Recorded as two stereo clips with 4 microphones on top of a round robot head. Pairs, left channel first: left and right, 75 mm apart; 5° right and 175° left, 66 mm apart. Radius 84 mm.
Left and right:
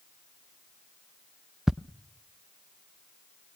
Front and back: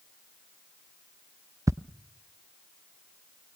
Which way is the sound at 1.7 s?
175° right.